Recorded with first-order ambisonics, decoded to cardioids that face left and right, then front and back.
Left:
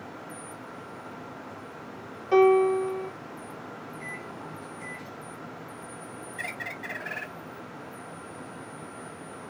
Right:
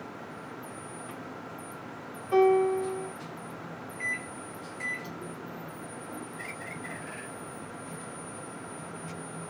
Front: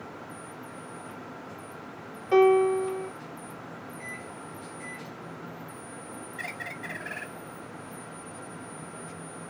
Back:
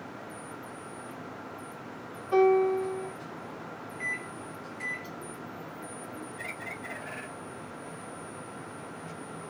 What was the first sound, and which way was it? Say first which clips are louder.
A piano: left 3 dB, front 3 dB; 40° left.